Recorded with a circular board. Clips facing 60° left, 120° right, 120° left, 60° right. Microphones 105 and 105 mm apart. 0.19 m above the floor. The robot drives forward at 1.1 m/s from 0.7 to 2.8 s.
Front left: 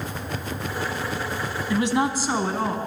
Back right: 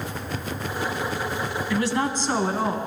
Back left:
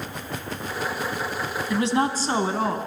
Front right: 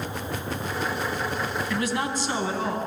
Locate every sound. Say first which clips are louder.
1.7 s a woman speaking: front left 3 dB, back left 8 dB; 85° left, 1.0 m; by 2.8 s 155° left, 1.5 m